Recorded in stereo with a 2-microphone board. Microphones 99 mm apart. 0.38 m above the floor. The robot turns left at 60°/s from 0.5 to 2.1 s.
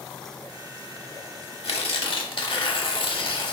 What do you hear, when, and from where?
1.6 s tearing paper: 80° left, 0.7 m; by 3.5 s 60° left (ahead or behind), 0.7 m